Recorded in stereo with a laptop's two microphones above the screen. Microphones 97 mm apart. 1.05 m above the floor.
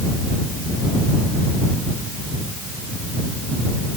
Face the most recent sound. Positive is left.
No sound to turn to.